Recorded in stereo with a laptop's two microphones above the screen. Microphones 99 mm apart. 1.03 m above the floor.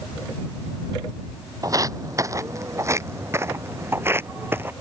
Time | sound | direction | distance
1.6 | footsteps | 35° right (ahead or behind) | ?